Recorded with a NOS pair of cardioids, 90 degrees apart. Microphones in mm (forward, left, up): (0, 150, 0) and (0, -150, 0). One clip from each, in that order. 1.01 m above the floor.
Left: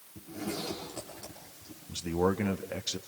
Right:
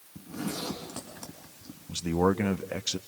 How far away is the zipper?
About 6 m.